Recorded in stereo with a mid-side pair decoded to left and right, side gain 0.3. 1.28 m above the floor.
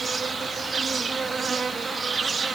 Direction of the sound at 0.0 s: 60° right.